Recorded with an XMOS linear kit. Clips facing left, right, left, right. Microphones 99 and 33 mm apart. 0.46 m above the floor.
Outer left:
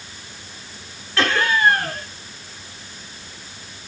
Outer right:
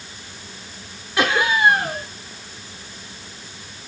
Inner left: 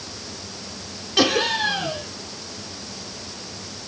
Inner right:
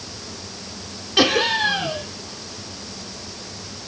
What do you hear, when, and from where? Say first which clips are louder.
1.2 s laughter: outer right 1 dB, inner right 2 dB; 15° right (ahead or behind), 1.5 m